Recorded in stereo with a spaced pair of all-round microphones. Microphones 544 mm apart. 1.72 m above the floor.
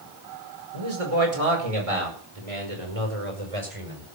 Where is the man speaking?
80° right, 5.5 m.